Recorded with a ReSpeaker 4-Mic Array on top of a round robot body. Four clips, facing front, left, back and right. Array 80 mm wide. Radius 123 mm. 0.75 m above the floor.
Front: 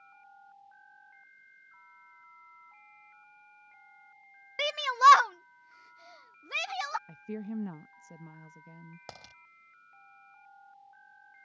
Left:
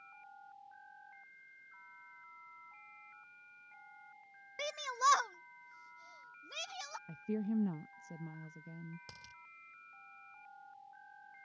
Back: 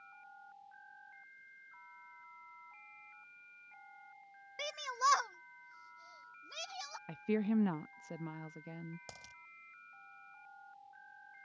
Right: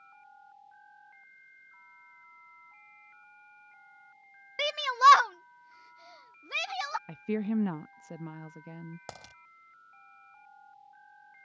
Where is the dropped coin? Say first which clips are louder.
Right 10 dB, front 5 dB; 60° right.